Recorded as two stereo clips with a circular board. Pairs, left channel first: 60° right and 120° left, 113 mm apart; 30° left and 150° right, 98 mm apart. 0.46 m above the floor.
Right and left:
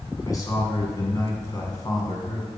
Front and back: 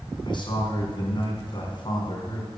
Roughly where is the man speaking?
Ahead.